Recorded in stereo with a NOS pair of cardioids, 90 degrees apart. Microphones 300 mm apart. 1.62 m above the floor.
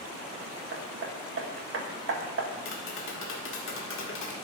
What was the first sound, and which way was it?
Hammering, 45° right.